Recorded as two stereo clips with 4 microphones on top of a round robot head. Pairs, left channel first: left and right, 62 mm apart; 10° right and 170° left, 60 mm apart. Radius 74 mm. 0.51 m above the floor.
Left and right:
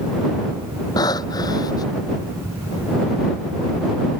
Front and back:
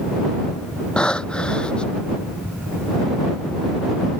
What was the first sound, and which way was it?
Breathing, 65° left.